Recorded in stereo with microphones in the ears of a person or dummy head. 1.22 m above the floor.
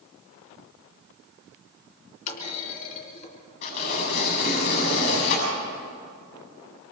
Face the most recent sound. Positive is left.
turn(degrees=60)  # may be behind; listen again after turning